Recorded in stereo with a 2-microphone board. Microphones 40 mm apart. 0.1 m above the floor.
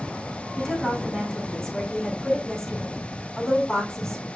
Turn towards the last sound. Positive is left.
turn(degrees=10)  # may be behind; listen again after turning